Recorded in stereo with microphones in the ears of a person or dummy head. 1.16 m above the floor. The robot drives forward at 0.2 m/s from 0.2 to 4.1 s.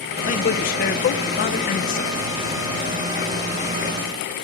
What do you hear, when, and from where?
0.3 s a man speaking: 35° left (ahead or behind), 0.6 m; by 2.1 s 40° left (ahead or behind), 0.6 m